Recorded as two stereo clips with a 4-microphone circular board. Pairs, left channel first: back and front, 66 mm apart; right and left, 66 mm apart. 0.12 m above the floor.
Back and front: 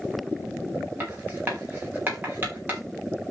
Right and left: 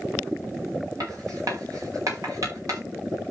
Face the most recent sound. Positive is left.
turn(degrees=60)